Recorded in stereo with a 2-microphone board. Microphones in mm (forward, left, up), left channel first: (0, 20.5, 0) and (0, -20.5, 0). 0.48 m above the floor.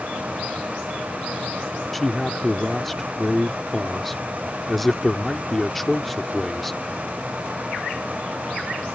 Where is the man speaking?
5° left (ahead or behind).